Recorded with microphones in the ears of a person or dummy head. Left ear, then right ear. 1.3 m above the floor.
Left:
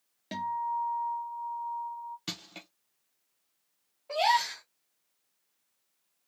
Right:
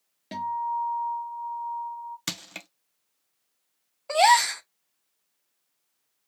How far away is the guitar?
About 0.9 m.